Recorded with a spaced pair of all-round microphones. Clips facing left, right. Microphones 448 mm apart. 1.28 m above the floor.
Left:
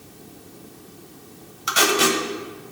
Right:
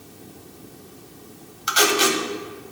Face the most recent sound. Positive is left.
turn(degrees=75)  # may be behind; listen again after turning